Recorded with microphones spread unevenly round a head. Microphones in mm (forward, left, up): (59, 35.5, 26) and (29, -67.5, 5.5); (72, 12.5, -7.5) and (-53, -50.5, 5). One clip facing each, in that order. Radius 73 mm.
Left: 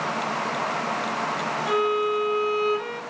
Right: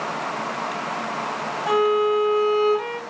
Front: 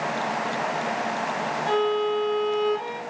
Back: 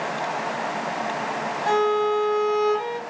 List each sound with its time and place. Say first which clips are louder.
1.7 s a violin: right 5 dB, back 3 dB; 165° right, 1.9 m